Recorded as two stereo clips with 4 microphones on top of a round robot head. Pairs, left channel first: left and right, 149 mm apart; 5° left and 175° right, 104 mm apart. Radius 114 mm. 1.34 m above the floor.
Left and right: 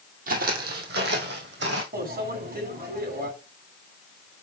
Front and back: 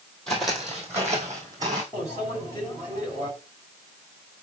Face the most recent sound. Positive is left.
turn(degrees=-70)